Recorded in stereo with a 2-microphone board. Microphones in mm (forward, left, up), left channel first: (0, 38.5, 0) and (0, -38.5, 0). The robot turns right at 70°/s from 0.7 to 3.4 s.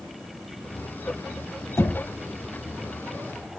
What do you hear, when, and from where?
1.8 s knocking: 40° left (ahead or behind), 1.0 m